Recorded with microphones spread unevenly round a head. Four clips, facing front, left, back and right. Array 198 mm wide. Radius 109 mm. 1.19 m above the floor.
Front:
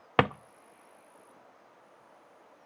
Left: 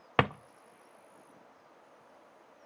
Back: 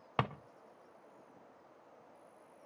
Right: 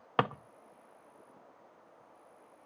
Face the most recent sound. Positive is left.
turn(degrees=30)